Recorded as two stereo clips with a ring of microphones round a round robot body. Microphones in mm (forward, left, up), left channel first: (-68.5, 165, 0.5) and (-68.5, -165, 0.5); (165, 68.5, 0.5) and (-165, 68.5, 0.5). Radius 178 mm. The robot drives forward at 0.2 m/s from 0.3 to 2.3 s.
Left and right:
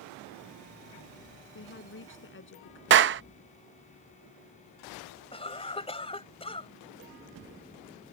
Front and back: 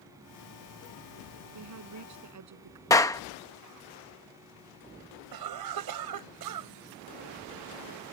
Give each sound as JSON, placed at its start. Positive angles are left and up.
{"t": 1.6, "sound": "a woman speaking", "azimuth_deg": 145}
{"t": 2.9, "sound": "a clap", "azimuth_deg": -75}
{"t": 5.3, "sound": "a cough", "azimuth_deg": 165}